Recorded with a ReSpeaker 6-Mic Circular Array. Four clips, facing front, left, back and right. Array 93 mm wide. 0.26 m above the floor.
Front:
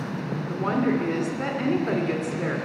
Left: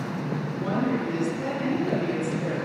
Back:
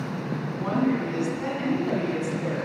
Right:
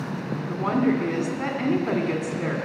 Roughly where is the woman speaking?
Right.